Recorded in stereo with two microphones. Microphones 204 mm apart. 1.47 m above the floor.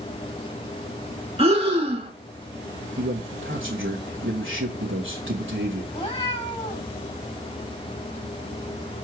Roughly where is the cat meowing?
Left.